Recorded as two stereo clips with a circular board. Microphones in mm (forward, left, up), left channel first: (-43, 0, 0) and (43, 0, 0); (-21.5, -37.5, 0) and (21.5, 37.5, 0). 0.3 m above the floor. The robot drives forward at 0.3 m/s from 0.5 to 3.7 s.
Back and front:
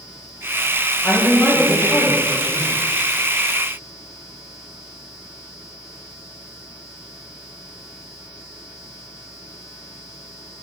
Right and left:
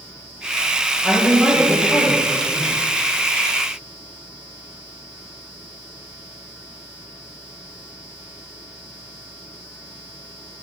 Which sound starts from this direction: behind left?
A woman speaking, at 1.0 s.